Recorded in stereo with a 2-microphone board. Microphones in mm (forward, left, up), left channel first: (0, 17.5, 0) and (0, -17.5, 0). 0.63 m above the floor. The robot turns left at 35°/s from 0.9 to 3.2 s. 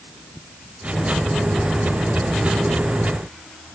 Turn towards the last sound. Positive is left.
No sound to turn to.